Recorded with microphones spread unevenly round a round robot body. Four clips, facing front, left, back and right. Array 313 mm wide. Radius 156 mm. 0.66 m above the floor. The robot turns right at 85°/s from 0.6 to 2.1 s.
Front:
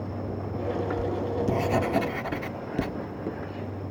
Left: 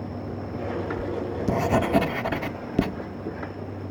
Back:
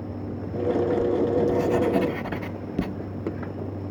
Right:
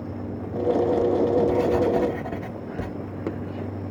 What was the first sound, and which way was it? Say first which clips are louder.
Writing: right 9 dB, back 6 dB; 15° left.